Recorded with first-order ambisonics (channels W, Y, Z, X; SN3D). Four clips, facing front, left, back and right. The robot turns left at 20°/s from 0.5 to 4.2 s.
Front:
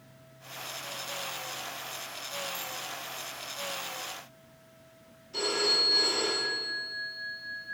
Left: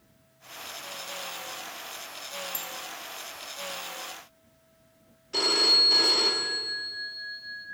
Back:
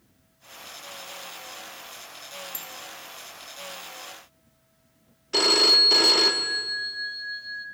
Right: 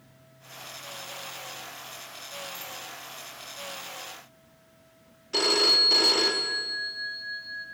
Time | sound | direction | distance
2.5 | a bicycle bell | 130° left | 2.5 m
5.3 | a phone ringing | 165° right | 1.4 m